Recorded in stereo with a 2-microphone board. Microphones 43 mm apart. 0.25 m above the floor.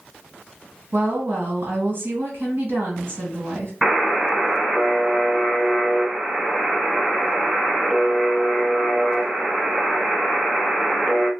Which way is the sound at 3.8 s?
5° right (ahead or behind).